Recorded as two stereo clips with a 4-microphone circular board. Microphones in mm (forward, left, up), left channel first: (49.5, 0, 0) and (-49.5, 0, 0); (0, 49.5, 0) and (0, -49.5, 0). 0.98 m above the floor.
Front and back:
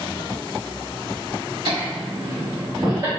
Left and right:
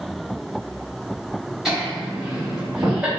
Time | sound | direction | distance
1.6 | laughter | 175° right | 1.7 m